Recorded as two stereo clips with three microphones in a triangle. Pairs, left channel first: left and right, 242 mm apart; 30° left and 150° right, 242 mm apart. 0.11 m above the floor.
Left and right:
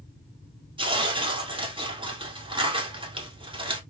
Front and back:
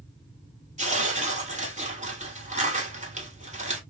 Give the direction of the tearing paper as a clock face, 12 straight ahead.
5 o'clock.